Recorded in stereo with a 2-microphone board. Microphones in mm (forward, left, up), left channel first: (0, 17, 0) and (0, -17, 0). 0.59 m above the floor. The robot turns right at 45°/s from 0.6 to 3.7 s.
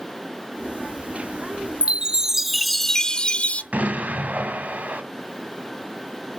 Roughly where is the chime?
Ahead right.